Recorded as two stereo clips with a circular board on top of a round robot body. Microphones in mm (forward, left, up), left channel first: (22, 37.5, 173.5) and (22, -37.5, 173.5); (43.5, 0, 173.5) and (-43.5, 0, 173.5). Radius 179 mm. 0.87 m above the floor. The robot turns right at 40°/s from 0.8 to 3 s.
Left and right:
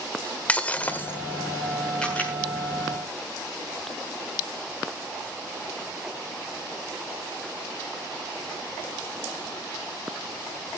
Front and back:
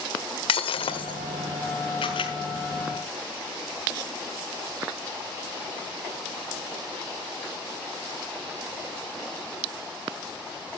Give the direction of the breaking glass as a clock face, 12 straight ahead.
11 o'clock.